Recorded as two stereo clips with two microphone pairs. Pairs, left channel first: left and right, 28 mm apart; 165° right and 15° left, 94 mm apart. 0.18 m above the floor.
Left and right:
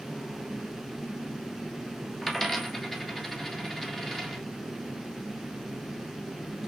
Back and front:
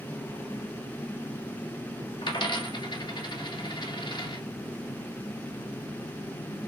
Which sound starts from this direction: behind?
A dropped coin, at 2.2 s.